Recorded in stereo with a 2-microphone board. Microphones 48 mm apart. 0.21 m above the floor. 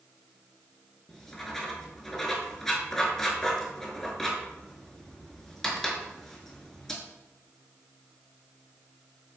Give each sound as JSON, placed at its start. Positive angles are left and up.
{"t": 1.1, "sound": "writing", "side_deg": 5, "distance_m": 0.5}